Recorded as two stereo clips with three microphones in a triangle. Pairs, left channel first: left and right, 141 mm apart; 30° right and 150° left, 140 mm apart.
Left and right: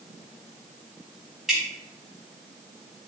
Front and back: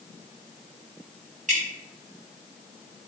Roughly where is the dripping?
Behind.